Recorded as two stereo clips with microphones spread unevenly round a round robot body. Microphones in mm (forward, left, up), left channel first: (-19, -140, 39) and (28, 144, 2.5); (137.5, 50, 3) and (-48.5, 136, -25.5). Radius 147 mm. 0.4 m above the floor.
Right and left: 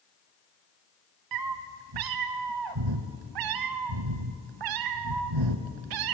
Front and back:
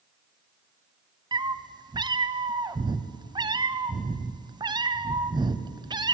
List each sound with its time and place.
1.3 s a cat meowing: 85° left, 0.7 m